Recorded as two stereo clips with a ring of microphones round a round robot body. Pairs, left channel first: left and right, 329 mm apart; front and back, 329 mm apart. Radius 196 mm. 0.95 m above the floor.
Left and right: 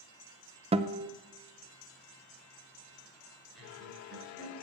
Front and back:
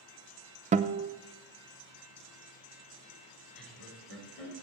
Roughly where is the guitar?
Behind right.